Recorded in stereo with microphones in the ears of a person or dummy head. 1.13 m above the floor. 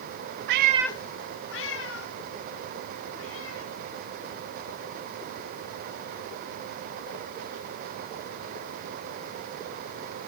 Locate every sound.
0.5 s a cat meowing: 60° right (ahead or behind), 0.6 m; by 7.7 s 90° left, 9.5 m